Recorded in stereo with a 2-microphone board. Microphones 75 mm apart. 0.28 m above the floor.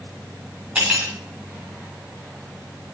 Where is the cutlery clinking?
15° right (ahead or behind), 1.1 m.